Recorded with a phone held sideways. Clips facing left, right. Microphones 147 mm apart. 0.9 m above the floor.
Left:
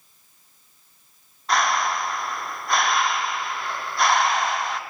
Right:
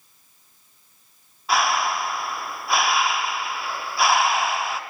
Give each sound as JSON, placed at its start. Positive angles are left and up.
{"t": 1.5, "sound": "breathing", "side_deg": -5, "distance_m": 0.6}